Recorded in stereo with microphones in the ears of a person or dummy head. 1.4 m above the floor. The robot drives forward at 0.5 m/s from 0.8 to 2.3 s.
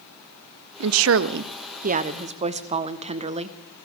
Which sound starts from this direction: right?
A woman speaking, at 0.8 s.